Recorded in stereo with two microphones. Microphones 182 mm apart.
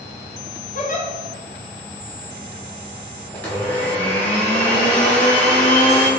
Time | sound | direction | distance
0.8 | a giggle | 45° left (ahead or behind) | 0.6 m
3.3 | a blender | 10° left (ahead or behind) | 0.7 m